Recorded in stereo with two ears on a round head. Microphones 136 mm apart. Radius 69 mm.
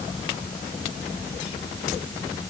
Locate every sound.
Only background noise.